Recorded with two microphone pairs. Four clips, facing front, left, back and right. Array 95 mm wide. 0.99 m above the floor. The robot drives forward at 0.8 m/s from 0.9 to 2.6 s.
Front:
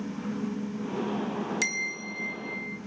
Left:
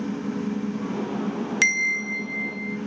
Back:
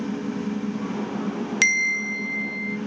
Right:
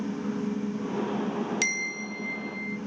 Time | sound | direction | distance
1.6 | a bell | 125° left | 1.6 m